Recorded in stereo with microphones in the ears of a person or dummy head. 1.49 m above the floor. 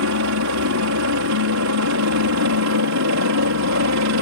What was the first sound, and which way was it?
A helicopter, 70° right (ahead or behind).